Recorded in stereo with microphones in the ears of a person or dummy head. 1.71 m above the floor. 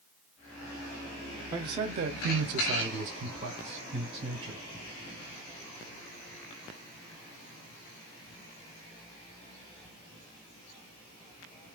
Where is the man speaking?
25° right (ahead or behind), 0.7 m; by 4.6 s 40° right (ahead or behind), 1.7 m.